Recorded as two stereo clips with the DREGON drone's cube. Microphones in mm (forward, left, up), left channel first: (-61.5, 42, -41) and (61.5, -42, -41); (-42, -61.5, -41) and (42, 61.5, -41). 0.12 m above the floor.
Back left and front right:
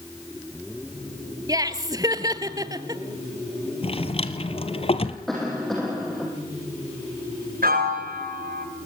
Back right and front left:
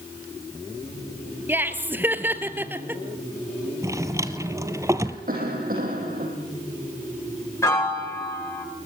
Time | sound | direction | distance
1.5 | laughter | 5° right | 1.4 m
3.8 | a drawer | 115° left | 1.2 m
5.3 | a cough | 55° left | 4 m
7.6 | a piano | 50° right | 9 m